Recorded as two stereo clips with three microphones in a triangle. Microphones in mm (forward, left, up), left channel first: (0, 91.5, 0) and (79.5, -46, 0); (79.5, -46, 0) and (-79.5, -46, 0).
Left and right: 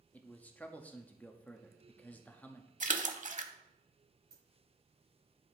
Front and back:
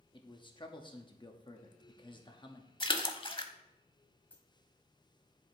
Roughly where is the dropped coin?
Right.